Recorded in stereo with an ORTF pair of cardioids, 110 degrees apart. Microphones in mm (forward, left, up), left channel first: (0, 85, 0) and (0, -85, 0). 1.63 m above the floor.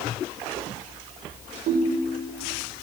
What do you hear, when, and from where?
1.7 s a ringtone: 65° right, 5 m